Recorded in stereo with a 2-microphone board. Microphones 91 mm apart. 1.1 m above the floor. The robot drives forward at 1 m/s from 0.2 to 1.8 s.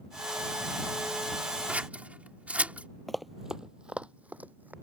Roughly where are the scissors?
Centre.